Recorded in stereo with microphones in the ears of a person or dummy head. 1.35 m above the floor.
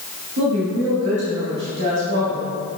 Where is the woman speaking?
60° right (ahead or behind), 1.6 m.